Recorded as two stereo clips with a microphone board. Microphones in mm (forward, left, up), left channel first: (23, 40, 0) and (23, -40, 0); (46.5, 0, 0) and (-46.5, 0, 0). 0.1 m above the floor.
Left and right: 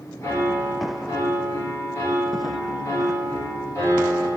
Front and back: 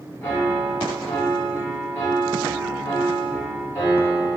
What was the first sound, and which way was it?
A piano, 55° left.